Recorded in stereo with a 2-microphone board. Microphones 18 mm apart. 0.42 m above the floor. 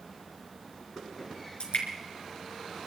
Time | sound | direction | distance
1.6 | dripping | 75° left (ahead or behind) | 4 m